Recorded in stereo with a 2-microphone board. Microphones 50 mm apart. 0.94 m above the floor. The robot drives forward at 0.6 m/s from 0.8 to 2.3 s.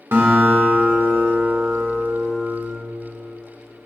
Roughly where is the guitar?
Right.